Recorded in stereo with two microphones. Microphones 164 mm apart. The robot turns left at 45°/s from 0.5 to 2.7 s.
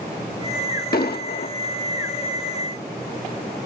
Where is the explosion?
70° left (ahead or behind), 0.7 m; by 1.6 s 75° left (ahead or behind), 0.7 m.